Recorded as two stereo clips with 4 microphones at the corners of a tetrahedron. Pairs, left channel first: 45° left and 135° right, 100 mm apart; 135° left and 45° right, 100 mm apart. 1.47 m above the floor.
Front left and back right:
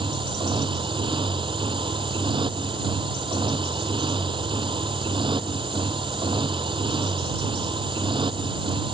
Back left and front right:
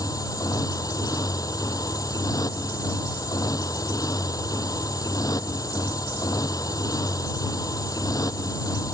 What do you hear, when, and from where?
0.0 s a motorcycle: 170° right